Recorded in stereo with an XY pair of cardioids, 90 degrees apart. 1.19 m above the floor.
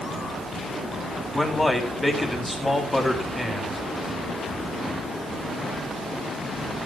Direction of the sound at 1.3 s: 15° left.